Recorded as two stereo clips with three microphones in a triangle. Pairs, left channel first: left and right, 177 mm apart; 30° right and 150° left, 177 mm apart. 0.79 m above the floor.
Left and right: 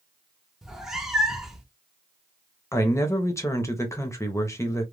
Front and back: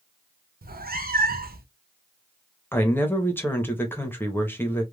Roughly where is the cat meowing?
Behind.